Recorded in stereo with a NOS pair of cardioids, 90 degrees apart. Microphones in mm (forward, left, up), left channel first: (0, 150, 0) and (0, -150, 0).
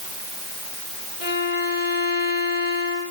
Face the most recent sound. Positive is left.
turn(degrees=60)